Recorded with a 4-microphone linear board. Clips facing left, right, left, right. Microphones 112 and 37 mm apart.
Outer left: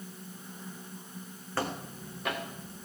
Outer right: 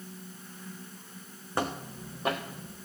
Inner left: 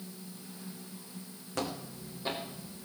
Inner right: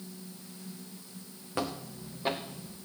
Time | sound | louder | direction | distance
1.6 | footsteps | outer right 2 dB, inner right 2 dB | 20° right (ahead or behind) | 3 m